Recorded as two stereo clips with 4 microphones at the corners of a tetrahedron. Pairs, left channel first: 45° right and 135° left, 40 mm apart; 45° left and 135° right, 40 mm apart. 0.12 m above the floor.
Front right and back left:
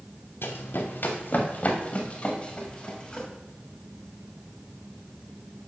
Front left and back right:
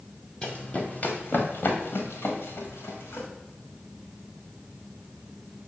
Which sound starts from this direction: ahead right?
Running footsteps, at 0.4 s.